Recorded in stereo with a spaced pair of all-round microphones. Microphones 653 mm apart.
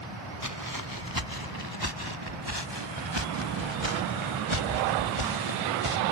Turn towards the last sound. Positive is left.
turn(degrees=-50)  # may be behind; listen again after turning